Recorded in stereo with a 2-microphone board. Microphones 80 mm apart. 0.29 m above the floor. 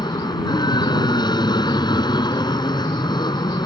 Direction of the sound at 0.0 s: 65° left (ahead or behind).